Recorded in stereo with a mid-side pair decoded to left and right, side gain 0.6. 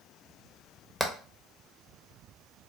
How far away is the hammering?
About 0.9 m.